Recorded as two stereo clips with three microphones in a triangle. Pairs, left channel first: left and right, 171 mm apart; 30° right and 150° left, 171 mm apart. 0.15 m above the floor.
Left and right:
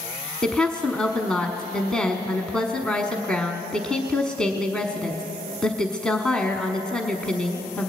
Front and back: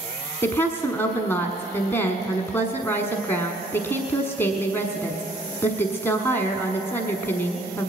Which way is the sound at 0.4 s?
15° left.